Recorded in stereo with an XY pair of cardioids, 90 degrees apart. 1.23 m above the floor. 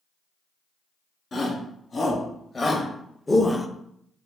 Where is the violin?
No violin in this recording.